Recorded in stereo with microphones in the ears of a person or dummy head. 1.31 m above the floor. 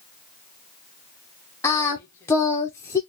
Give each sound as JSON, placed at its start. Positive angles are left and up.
{"t": 1.6, "sound": "singing", "side_deg": 20, "distance_m": 0.6}